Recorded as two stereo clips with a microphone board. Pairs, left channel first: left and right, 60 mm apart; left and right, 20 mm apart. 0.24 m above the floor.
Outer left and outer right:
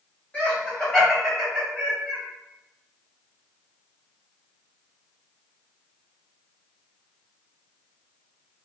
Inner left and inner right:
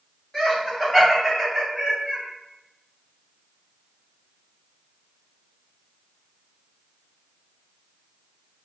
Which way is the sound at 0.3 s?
25° left (ahead or behind).